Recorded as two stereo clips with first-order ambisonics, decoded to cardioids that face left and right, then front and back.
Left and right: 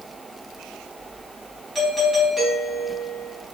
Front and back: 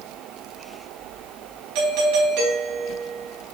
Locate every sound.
1.8 s a doorbell: 175° right, 2.5 m